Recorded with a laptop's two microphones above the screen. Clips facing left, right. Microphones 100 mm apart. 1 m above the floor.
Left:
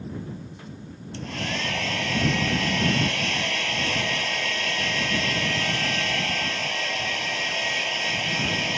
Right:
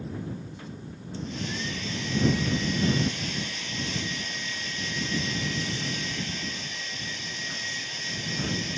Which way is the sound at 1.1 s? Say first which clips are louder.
Left 3 dB; 70° left (ahead or behind).